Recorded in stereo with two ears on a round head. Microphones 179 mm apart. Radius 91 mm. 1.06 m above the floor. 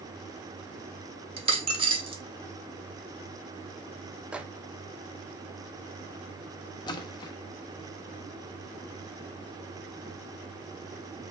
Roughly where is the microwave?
Centre.